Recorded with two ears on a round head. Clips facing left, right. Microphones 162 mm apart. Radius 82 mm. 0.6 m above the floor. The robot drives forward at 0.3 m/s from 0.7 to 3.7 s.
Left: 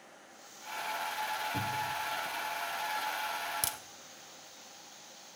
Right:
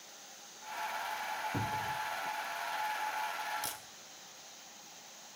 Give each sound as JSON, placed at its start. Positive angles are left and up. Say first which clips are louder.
{"t": 1.5, "sound": "a cupboard door", "louder": "right 1 dB", "side_deg": -20, "distance_m": 0.9}
{"t": 3.6, "sound": "a crack", "louder": "left 2 dB", "side_deg": 65, "distance_m": 1.4}